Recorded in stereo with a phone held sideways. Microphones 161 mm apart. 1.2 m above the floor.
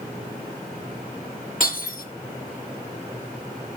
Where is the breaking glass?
65° left (ahead or behind), 7.5 m.